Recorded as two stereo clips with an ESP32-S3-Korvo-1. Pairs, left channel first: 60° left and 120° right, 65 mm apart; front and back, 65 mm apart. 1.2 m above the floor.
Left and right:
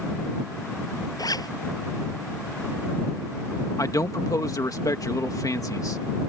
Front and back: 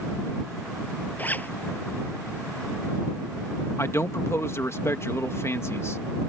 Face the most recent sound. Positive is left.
turn(degrees=40)